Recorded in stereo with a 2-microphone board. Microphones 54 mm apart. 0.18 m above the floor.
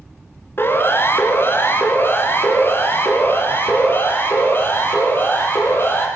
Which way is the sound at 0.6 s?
45° left (ahead or behind).